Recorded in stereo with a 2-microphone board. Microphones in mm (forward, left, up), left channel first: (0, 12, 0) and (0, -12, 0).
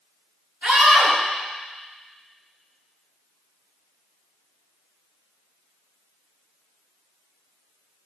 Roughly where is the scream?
Right.